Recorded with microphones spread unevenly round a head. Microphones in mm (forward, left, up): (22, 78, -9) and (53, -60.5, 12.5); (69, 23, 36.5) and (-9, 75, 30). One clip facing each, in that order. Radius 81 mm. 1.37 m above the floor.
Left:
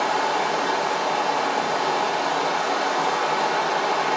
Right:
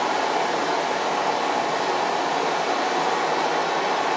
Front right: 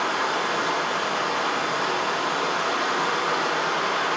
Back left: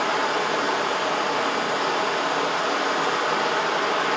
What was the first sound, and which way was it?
Running water, 145° right.